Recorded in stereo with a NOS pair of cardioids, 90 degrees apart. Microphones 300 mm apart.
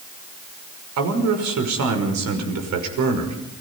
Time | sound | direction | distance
1.0 | a man speaking | 70° right | 6 m